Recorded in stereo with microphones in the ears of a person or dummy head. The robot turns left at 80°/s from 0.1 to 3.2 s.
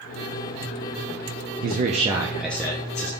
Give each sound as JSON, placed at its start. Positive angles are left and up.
{"t": 1.6, "sound": "a man speaking", "azimuth_deg": -115, "distance_m": 0.6}